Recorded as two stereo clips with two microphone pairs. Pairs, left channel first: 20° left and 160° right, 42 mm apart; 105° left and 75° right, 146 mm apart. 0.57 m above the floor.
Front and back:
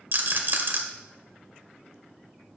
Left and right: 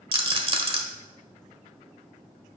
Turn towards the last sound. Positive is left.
turn(degrees=-125)